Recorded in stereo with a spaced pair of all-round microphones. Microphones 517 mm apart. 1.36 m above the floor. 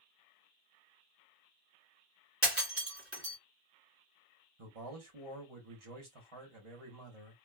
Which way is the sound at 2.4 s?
25° right (ahead or behind).